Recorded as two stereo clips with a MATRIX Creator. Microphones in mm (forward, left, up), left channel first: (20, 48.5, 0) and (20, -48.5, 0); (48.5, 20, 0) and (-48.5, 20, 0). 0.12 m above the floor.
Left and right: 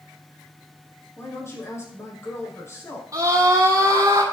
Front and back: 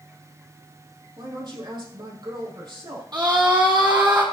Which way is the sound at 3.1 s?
145° right.